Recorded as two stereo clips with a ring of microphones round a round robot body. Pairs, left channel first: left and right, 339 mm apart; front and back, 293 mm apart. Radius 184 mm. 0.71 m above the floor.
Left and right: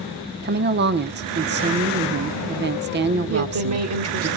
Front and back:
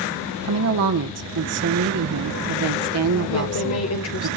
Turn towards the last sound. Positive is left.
turn(degrees=-45)